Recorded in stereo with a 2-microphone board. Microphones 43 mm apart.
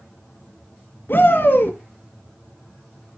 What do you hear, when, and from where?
1.1 s a shout: 55° left (ahead or behind), 1.9 m